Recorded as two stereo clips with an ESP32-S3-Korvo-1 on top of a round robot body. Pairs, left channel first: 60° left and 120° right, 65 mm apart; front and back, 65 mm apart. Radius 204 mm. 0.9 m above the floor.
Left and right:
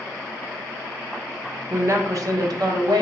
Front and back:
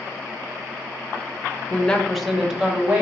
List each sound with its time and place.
1.7 s a woman speaking: 65° right, 0.9 m; by 3.0 s 110° right, 1.5 m